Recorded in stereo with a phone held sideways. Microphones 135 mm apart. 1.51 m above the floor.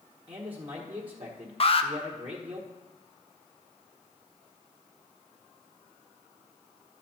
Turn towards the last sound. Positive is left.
turn(degrees=45)  # may be behind; listen again after turning